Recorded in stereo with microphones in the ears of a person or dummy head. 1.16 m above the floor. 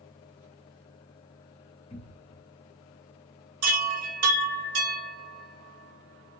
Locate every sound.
1.9 s a cupboard door: 25° left (ahead or behind), 0.7 m
3.6 s a chime: 75° right (ahead or behind), 1.2 m